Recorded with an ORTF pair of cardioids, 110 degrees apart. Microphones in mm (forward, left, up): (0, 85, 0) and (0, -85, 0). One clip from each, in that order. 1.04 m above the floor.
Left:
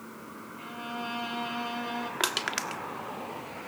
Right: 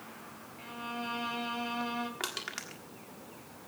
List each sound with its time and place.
0.6 s a violin: 10° left, 2.5 m
2.2 s crushing: 45° left, 1.4 m